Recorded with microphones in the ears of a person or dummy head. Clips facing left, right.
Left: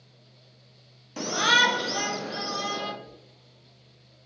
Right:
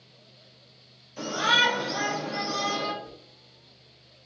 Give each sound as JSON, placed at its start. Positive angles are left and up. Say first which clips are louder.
{"t": 1.2, "sound": "a shout", "louder": "left 1 dB", "side_deg": 80, "distance_m": 0.5}
{"t": 3.0, "sound": "a whoosh", "louder": "right 3 dB", "side_deg": -60, "distance_m": 0.6}